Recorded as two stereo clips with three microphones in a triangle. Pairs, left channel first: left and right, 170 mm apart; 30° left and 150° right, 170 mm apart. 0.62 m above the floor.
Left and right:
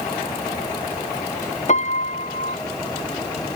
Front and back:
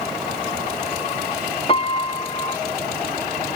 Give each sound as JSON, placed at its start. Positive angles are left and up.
{"t": 1.7, "sound": "a piano", "azimuth_deg": 70, "distance_m": 0.7}